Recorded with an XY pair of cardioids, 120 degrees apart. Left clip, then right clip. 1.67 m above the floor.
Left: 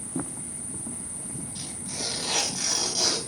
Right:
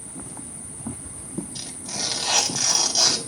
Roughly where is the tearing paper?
Ahead right.